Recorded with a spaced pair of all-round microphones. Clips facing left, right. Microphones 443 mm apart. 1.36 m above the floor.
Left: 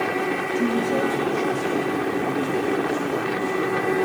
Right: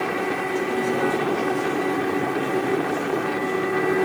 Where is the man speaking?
75° left (ahead or behind), 3 m; by 4.0 s 85° left, 6 m.